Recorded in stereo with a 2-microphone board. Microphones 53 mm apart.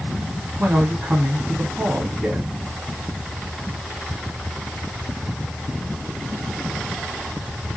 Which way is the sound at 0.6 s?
25° right (ahead or behind).